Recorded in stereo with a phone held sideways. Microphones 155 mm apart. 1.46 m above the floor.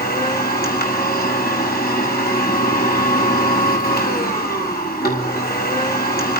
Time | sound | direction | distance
0.0 | a machine running | 80° left | 6.5 m